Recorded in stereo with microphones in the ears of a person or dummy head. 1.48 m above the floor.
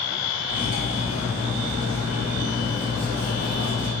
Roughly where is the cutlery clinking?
Right.